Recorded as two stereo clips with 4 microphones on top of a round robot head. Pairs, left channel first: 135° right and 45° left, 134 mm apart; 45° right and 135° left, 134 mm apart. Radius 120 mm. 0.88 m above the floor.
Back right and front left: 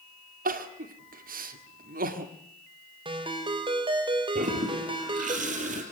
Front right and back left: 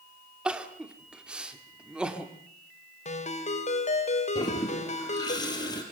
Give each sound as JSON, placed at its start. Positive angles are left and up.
{"t": 0.5, "sound": "crying", "azimuth_deg": 50, "distance_m": 2.0}
{"t": 3.0, "sound": "a ringtone", "azimuth_deg": -10, "distance_m": 3.0}
{"t": 4.3, "sound": "a toilet flushing", "azimuth_deg": 15, "distance_m": 4.0}